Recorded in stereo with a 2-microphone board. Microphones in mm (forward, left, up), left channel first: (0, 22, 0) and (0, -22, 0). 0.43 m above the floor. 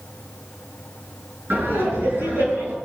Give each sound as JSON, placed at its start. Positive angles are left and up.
{"t": 1.5, "sound": "laughter", "side_deg": -55, "distance_m": 5.5}